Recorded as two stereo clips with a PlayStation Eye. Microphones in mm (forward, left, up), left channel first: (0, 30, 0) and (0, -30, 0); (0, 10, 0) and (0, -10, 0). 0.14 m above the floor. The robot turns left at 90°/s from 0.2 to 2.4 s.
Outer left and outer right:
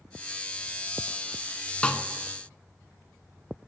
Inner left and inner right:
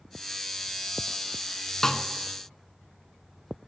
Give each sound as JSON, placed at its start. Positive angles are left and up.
{"t": 1.8, "sound": "a snare drum", "side_deg": 20, "distance_m": 0.7}